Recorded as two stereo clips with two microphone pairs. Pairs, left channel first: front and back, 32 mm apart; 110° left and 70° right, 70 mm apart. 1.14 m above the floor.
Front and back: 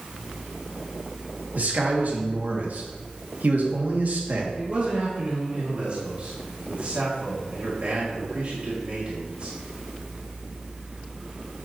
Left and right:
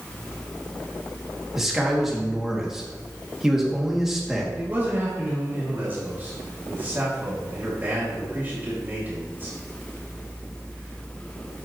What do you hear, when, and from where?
1.6 s a man speaking: 155° right, 2 m
4.5 s a man speaking: 130° right, 2.5 m